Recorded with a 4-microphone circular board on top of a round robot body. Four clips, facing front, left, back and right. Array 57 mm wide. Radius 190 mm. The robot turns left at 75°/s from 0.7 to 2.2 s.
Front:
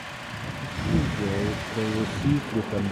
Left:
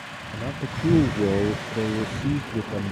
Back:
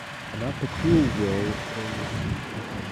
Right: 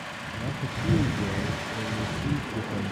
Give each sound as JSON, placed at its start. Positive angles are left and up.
{"t": 0.3, "sound": "a man speaking", "azimuth_deg": 150}